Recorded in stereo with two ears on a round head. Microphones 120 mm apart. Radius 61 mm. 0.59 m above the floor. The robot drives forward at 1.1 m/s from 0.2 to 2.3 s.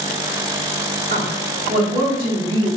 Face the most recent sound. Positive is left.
turn(degrees=-40)  # may be behind; listen again after turning